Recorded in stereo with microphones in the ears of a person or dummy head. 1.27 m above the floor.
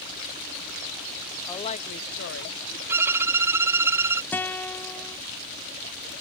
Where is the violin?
15° right (ahead or behind).